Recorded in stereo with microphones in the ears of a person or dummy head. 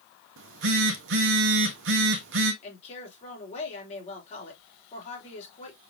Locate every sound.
0.4 s a phone buzzing: 60° right (ahead or behind), 0.9 m
2.6 s a woman speaking: 35° left (ahead or behind), 3 m